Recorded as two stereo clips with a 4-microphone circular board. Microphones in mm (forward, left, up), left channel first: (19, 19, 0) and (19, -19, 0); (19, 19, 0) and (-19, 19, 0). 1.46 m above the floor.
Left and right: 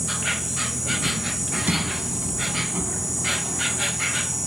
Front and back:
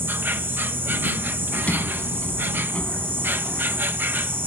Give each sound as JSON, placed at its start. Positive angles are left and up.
{"t": 0.0, "sound": "an insect", "azimuth_deg": -175}
{"t": 1.5, "sound": "a sliding door", "azimuth_deg": -45}